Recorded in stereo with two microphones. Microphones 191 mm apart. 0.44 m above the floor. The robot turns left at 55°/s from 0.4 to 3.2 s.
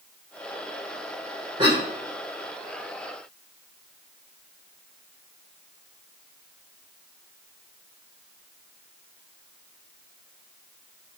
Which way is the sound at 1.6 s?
30° right (ahead or behind).